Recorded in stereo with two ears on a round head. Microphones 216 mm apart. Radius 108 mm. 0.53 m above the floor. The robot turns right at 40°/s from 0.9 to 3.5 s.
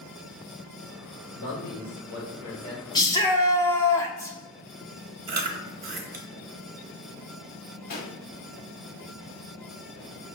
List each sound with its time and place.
1.3 s a man speaking: 80° left, 1.9 m; by 2.8 s 140° left, 1.9 m
3.0 s a shout: 15° left (ahead or behind), 0.6 m; by 4.4 s 10° left (ahead or behind), 0.6 m
5.3 s chewing: 40° right (ahead or behind), 0.8 m
7.9 s a pop: 45° left (ahead or behind), 1.1 m